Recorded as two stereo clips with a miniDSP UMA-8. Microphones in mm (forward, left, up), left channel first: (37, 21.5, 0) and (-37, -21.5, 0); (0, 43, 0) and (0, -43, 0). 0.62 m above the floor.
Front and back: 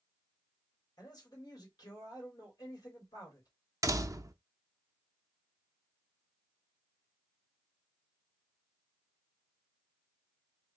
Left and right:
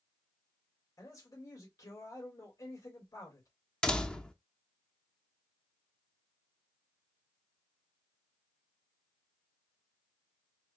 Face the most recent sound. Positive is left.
turn(degrees=165)